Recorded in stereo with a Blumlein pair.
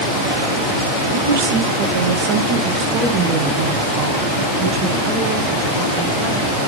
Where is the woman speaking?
65° right, 1.4 m; by 6.4 s 20° right, 3.5 m.